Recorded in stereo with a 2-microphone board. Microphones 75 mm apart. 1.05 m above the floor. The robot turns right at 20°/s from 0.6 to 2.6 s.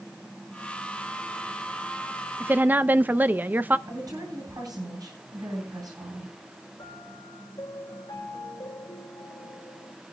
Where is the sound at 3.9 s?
60° right (ahead or behind), 9 m.